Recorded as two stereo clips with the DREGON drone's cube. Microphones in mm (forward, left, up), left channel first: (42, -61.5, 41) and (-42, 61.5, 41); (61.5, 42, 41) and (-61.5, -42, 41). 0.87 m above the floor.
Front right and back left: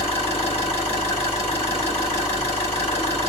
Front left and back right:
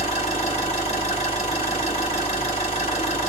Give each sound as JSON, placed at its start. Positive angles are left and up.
{"t": 0.0, "sound": "an engine running", "azimuth_deg": -5, "distance_m": 2.0}